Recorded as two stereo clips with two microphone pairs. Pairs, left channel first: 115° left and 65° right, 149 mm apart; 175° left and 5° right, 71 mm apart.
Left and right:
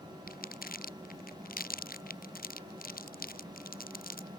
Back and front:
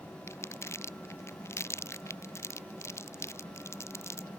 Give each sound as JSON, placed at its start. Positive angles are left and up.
{"t": 0.3, "sound": "crumpling", "azimuth_deg": 125}